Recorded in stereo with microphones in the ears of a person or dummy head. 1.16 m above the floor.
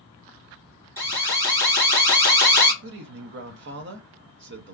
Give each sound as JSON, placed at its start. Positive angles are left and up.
{"t": 1.0, "sound": "an alarm", "side_deg": -15, "distance_m": 1.3}
{"t": 2.8, "sound": "a man speaking", "side_deg": -55, "distance_m": 0.6}